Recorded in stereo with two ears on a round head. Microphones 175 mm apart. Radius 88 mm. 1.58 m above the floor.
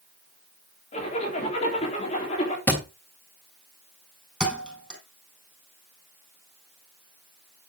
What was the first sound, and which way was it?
A zipper, 35° left (ahead or behind).